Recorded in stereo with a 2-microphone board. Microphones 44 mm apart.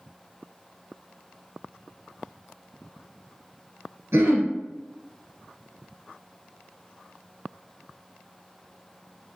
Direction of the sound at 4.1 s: 65° right (ahead or behind).